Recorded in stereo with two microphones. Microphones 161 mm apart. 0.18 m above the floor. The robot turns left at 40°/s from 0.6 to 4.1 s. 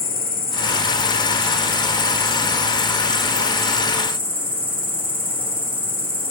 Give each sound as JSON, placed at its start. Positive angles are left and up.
{"t": 0.0, "sound": "an insect", "azimuth_deg": 105, "distance_m": 3.5}